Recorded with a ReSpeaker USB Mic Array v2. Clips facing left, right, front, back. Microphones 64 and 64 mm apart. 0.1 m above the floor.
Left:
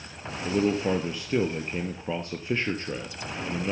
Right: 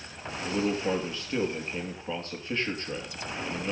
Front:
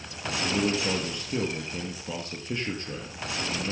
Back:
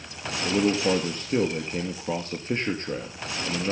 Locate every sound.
0.4 s a man speaking: 155° left, 1.8 m